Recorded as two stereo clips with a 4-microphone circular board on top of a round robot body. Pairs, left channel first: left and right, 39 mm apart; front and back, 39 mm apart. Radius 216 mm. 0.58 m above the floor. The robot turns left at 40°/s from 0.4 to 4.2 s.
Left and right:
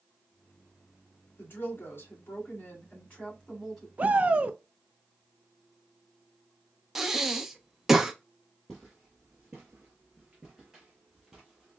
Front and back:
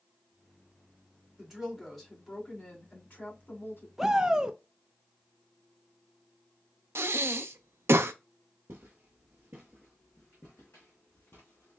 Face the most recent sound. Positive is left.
turn(degrees=-5)